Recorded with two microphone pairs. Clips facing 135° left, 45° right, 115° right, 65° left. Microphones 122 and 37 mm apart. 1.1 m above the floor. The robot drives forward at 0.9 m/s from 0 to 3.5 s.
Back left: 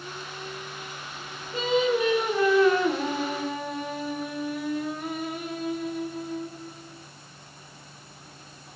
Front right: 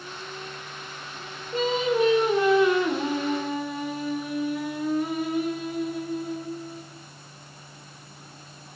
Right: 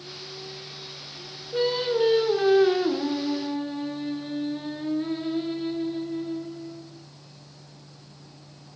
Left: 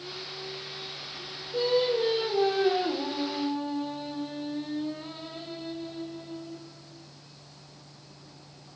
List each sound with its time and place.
1.5 s singing: 80° right, 1.9 m; by 6.8 s 135° right, 2.5 m